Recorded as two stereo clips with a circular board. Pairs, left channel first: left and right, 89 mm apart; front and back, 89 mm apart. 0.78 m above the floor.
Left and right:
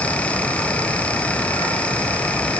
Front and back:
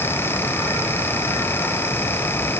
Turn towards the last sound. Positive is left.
No sound to turn to.